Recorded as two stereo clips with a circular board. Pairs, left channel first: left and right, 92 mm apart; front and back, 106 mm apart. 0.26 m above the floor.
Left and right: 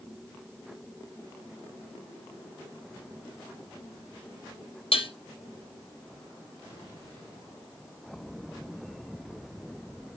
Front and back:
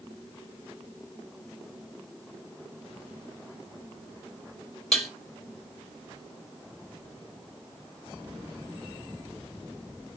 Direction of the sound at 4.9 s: 90° left.